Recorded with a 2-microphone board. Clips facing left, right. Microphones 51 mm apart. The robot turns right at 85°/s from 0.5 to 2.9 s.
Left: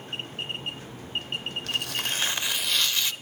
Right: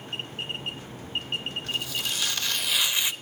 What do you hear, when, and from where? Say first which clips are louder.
1.7 s tearing paper: left 2 dB; 95° left, 0.5 m; by 3.1 s 160° right, 0.5 m